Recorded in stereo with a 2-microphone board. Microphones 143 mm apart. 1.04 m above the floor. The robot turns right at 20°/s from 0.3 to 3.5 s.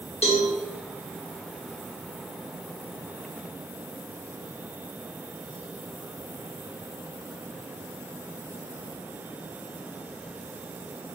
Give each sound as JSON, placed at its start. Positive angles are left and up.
{"t": 0.2, "sound": "a cowbell", "side_deg": 50, "distance_m": 1.2}